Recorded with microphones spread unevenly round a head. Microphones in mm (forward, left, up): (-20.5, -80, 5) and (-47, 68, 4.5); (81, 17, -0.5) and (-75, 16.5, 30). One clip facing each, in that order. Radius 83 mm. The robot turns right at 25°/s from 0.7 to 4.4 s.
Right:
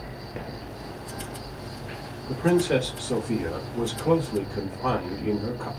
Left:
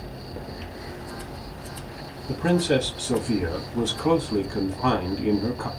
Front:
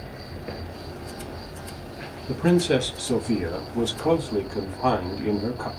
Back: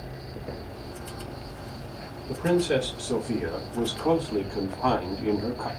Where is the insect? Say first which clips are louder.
Even, front 1 dB; 20° left, 1.5 m; by 5.8 s 110° left, 1.5 m.